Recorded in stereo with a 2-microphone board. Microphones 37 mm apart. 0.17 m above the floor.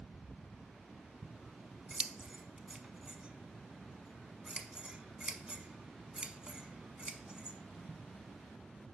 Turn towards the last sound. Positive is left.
turn(degrees=-25)  # may be behind; listen again after turning